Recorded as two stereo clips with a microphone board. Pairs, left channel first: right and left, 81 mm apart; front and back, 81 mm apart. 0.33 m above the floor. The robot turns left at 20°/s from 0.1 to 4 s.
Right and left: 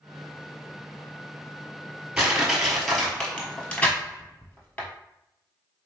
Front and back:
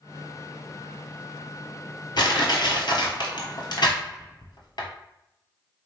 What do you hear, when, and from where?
2.2 s crushing: 15° left, 1.0 m; by 4.9 s 20° right, 1.0 m